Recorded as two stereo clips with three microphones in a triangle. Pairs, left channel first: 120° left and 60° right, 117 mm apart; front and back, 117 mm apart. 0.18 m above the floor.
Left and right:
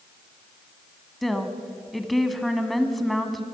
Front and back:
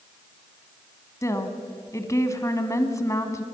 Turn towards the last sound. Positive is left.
turn(degrees=30)